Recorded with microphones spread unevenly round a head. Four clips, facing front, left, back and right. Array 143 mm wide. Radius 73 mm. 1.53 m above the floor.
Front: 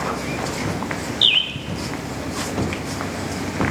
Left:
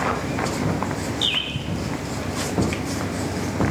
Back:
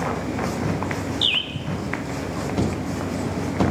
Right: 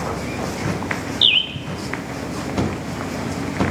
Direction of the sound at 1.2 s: 90° right.